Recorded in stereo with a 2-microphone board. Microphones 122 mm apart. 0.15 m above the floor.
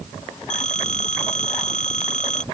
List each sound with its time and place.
0.5 s a phone ringing: 85° left